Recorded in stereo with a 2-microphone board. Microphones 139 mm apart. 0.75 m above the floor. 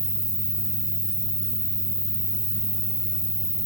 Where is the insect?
35° right (ahead or behind), 1.1 m.